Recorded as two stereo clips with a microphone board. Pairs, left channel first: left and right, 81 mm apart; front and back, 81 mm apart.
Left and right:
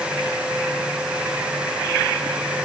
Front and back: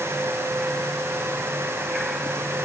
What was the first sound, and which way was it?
Only background noise.